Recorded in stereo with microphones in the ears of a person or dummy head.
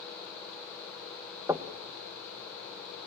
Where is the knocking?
15° right (ahead or behind), 0.8 m.